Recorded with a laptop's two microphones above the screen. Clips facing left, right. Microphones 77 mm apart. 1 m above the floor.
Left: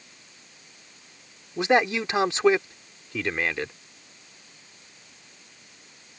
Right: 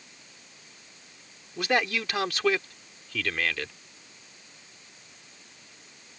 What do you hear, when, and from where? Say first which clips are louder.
1.6 s a man speaking: left 5 dB; 25° left (ahead or behind)